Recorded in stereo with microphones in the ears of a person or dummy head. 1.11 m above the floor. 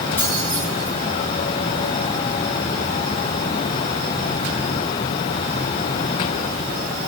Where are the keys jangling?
10° left (ahead or behind), 4 m.